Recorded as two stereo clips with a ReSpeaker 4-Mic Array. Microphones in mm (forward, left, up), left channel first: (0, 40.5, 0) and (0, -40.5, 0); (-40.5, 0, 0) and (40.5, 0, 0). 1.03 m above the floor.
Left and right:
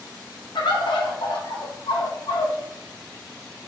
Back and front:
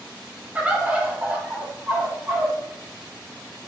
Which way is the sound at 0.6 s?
75° left.